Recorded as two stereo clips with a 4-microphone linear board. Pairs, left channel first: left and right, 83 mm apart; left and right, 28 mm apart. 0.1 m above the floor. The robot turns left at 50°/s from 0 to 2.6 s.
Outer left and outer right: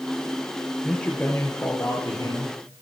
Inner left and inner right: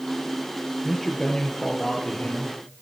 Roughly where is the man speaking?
Behind.